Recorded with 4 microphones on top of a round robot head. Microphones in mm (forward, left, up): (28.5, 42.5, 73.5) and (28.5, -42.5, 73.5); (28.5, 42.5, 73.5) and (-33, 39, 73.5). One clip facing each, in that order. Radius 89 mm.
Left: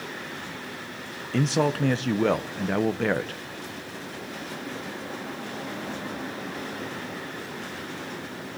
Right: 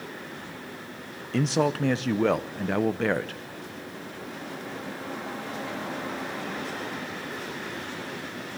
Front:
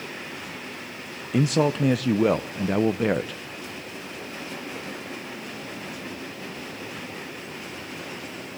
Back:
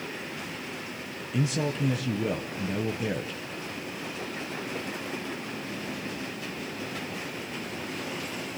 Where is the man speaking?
Straight ahead, 0.6 m.